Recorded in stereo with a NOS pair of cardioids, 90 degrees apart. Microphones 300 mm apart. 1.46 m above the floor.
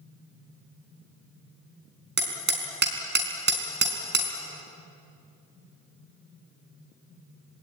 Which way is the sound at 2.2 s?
35° right.